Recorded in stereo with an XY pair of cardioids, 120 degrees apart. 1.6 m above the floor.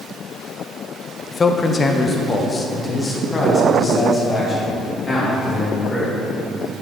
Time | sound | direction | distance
1.3 | a man speaking | 30° left | 0.5 m